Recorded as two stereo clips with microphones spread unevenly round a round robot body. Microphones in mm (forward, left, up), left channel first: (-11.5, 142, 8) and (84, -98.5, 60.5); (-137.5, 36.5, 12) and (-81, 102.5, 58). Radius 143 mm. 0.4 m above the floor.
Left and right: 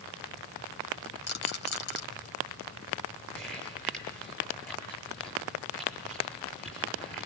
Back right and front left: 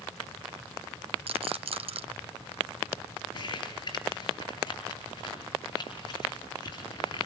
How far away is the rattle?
About 2.5 m.